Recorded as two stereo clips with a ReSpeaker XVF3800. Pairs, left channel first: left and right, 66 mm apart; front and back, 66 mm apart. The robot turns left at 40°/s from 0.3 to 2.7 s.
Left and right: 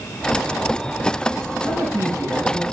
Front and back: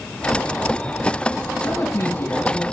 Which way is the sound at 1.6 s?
25° right.